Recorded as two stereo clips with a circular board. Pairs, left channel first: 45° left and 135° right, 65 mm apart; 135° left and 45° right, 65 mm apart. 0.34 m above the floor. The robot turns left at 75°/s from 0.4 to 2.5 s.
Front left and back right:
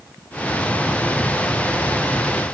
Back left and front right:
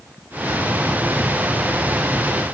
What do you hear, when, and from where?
Only background noise.